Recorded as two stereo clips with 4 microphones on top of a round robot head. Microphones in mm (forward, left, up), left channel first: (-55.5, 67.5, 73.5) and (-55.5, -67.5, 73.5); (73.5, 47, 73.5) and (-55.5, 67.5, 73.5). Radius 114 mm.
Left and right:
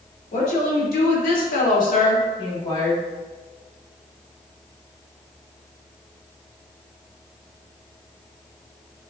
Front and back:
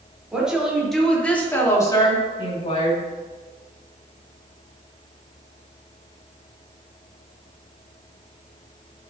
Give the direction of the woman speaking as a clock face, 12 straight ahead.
9 o'clock.